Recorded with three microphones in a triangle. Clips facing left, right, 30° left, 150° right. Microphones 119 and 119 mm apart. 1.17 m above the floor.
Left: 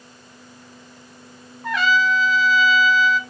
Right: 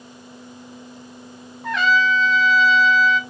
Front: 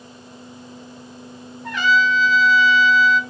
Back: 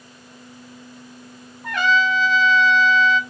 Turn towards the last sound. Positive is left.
turn(degrees=180)